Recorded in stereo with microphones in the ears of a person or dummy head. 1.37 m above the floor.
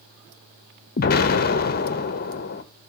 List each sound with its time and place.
1.0 s an explosion: 45° left (ahead or behind), 0.7 m